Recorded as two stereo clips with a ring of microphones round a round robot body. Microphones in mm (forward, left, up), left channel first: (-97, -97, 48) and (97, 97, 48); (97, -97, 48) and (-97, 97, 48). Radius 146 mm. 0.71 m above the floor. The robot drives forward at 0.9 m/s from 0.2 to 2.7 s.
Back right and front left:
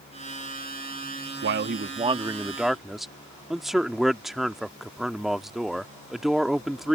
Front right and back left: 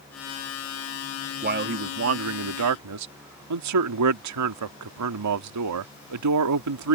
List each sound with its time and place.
1.4 s a man speaking: 80° left; by 7.0 s 135° left